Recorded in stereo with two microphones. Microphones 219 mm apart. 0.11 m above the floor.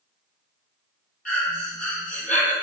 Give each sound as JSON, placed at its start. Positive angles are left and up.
{"t": 1.2, "sound": "breathing", "side_deg": 40, "distance_m": 0.8}